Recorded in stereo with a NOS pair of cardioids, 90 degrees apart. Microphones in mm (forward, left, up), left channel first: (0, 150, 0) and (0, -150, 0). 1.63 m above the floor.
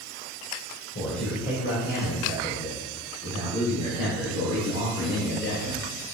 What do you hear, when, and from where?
0.9 s a man speaking: 40° left, 2 m; by 5.9 s 55° left, 5.5 m